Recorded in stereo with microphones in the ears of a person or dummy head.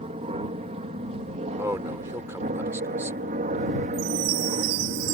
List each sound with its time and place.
0.0 s an aircraft: 30° right (ahead or behind); by 5.2 s 40° right (ahead or behind)
1.6 s a man speaking: 15° right (ahead or behind)
3.9 s a chime: 85° right